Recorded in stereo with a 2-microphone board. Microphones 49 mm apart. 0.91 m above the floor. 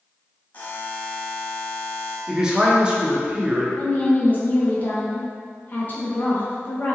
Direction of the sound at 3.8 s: 40° left (ahead or behind).